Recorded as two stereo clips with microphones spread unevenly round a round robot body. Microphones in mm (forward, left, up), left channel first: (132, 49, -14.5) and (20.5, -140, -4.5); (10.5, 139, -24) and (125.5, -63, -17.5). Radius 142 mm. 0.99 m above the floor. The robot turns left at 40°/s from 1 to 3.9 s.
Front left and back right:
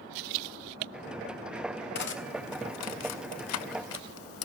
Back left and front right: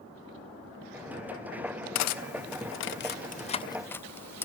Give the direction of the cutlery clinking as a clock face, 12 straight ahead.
8 o'clock.